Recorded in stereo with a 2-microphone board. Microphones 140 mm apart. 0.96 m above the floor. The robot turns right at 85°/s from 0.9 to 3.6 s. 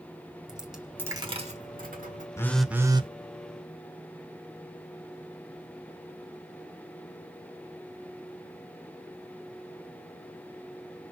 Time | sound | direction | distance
0.5 | a dropped coin | 175° right | 1.4 m
2.4 | a phone buzzing | 160° left | 0.7 m